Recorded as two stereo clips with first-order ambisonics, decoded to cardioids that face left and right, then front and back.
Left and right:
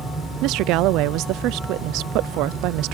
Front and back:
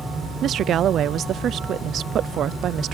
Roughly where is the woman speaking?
Behind right.